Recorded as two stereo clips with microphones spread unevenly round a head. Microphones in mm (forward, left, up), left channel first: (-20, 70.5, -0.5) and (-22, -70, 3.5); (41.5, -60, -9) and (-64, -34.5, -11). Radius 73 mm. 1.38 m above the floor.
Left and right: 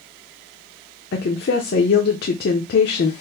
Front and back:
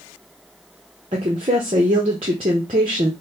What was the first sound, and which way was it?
A woman speaking, 110° left.